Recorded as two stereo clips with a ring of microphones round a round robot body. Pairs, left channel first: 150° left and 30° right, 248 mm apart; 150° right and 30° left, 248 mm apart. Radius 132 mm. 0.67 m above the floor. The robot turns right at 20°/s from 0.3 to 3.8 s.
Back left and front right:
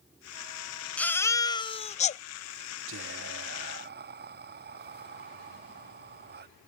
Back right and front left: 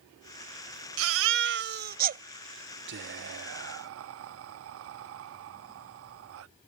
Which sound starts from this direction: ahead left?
A baby crying, at 1.0 s.